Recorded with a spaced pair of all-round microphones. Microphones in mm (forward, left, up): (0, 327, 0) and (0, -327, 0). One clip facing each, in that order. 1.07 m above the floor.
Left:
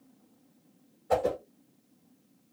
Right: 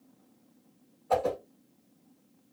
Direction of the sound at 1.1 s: 50° left (ahead or behind).